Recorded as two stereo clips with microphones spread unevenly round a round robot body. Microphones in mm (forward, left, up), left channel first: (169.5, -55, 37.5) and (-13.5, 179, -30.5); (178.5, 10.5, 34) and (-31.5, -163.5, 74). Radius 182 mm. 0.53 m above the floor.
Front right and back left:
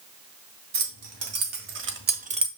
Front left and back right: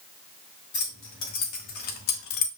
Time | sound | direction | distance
0.7 | keys jangling | 95° left | 2.5 m